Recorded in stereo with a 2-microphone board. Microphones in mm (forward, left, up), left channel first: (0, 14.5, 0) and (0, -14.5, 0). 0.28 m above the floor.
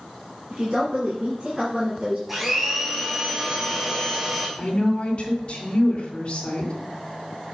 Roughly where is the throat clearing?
No throat clearing in this recording.